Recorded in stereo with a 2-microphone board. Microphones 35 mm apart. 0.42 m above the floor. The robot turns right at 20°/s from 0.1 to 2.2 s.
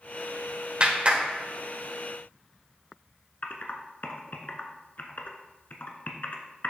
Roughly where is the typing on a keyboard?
Left.